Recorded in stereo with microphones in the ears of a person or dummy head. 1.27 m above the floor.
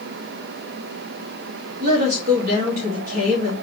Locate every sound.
1.8 s a woman speaking: 55° right (ahead or behind), 1.9 m